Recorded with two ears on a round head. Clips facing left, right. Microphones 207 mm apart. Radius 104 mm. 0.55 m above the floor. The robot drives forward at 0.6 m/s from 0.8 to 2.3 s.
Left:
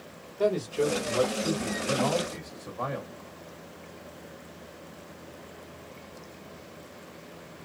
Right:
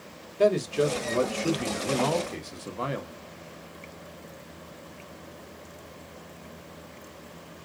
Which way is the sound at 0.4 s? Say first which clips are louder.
Right 3 dB; 30° right (ahead or behind).